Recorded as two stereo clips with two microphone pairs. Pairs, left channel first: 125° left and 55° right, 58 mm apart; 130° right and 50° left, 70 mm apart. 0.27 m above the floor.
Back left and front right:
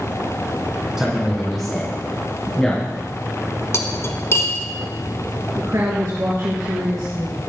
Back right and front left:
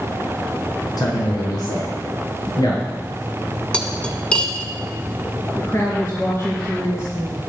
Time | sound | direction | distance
1.0 | a man speaking | 135° right | 3 m
3.7 | cutlery clinking | 155° left | 1.4 m
5.5 | a woman speaking | 80° right | 3.5 m